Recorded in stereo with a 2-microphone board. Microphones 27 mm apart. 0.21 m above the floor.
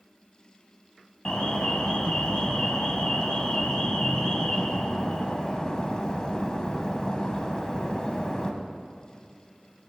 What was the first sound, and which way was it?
An alarm, 30° left (ahead or behind).